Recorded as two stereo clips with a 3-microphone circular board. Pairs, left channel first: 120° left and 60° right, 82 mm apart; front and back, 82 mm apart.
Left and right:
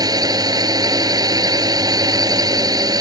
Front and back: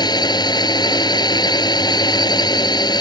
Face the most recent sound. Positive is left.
turn(degrees=-25)